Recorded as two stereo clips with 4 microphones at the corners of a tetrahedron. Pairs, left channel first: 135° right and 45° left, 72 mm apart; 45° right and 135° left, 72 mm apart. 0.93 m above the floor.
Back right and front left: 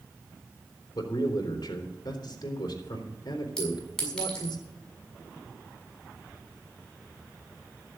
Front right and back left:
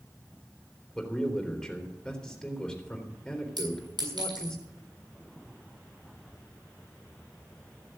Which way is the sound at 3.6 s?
145° left.